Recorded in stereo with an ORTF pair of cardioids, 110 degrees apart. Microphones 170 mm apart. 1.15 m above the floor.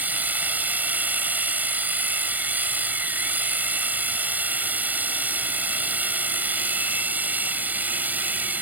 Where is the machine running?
10° right.